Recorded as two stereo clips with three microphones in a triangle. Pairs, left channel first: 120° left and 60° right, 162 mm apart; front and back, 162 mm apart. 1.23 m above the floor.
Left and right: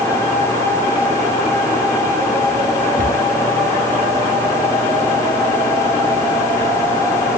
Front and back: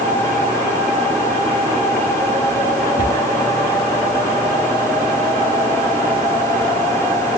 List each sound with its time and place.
3.0 s a cupboard door: 25° right, 3.5 m